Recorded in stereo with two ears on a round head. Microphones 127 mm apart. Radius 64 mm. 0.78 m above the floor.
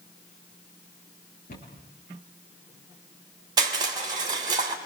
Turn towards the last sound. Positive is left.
turn(degrees=-30)  # may be behind; listen again after turning